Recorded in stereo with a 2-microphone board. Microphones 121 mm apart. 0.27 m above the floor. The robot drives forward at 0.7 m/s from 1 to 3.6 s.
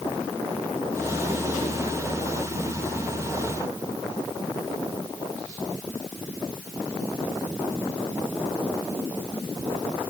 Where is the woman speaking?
No woman speaking in this recording.